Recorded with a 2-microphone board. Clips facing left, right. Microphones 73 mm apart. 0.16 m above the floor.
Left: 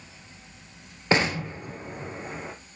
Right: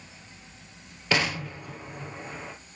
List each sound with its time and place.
1.1 s an explosion: 30° left (ahead or behind), 2 m